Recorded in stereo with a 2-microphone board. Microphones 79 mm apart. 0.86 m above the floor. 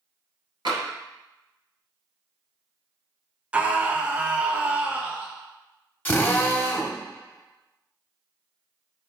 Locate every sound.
0.7 s tapping: 70° right (ahead or behind), 2.5 m
3.5 s a scream: 20° right (ahead or behind), 0.5 m
6.0 s a drill: 25° left (ahead or behind), 1.0 m